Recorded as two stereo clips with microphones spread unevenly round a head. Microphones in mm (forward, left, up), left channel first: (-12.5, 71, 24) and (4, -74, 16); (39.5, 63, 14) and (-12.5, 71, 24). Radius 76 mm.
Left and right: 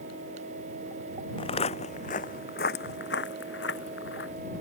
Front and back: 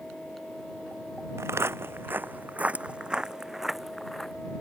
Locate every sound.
1.4 s footsteps: 150° left; by 4.3 s 80° left